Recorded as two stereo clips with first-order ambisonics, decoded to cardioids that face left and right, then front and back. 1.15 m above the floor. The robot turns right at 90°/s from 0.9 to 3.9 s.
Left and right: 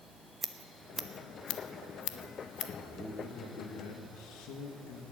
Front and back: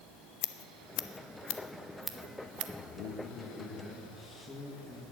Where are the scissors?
10° right, 0.8 m; by 2.7 s 150° left, 0.8 m.